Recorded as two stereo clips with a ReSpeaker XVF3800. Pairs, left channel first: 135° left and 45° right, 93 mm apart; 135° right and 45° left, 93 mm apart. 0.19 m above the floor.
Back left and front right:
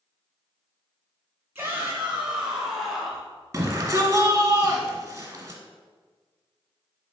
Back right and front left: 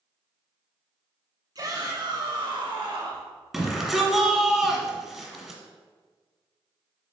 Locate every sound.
1.6 s a shout: 15° left, 1.8 m; by 3.3 s 45° left, 2.5 m
3.5 s a shout: 35° right, 1.2 m